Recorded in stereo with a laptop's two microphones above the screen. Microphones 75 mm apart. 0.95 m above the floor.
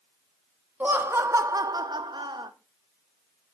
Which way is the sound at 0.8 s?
25° right (ahead or behind).